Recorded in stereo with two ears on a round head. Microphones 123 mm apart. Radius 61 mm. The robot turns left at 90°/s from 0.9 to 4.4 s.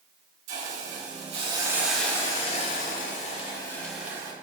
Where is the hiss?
85° right, 1.6 m; by 4.3 s 35° right, 1.6 m.